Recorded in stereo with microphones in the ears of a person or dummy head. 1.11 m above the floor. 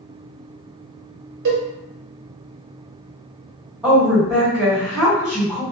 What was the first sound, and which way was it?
A cowbell, 60° right (ahead or behind).